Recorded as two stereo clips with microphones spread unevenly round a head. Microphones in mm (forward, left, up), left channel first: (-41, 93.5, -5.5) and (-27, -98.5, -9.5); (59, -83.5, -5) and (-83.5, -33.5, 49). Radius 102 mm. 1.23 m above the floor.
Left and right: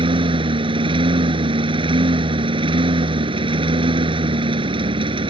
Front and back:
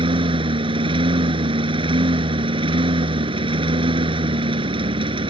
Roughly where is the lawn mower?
Behind right.